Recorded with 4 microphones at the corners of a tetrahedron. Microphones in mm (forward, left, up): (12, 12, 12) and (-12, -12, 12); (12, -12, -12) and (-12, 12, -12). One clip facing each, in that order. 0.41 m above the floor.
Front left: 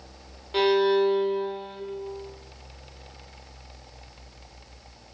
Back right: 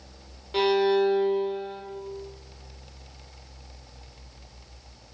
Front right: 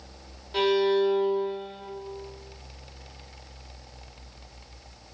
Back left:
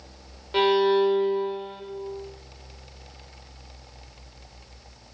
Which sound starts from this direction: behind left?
A violin, at 0.5 s.